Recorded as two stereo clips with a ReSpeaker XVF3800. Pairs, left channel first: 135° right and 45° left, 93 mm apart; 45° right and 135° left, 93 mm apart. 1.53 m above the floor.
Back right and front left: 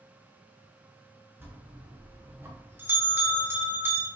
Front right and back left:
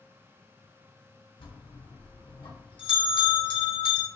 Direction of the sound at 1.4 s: 20° right.